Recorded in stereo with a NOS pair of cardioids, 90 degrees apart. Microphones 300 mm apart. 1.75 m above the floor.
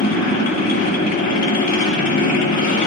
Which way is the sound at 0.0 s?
65° left.